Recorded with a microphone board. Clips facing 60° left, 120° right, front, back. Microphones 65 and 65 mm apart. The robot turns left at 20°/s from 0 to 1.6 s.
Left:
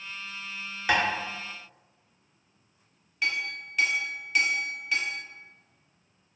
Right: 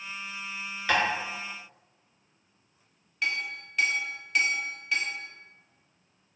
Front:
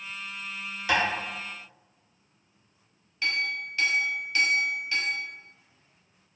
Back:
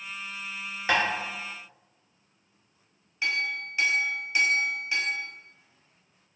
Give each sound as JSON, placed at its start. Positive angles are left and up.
{"t": 0.9, "sound": "tapping", "azimuth_deg": 135, "distance_m": 0.8}
{"t": 3.2, "sound": "a clink", "azimuth_deg": 145, "distance_m": 0.5}